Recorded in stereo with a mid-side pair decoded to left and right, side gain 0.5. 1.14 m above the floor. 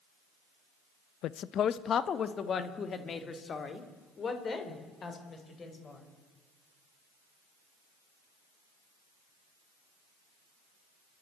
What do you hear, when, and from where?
1.2 s a woman speaking: 70° left, 0.7 m; by 6.0 s 40° left, 5.5 m